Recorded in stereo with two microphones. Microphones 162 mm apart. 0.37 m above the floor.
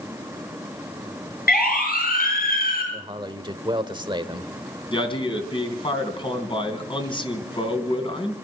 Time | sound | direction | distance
1.5 | a siren | 70° left (ahead or behind) | 6.5 m
2.9 | a man speaking | 30° right (ahead or behind) | 1.2 m
4.9 | a man speaking | 30° left (ahead or behind) | 3 m